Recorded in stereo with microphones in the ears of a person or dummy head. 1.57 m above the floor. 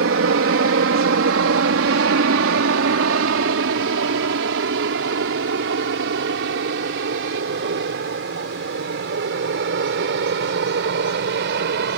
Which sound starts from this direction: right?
An aircraft, at 0.0 s.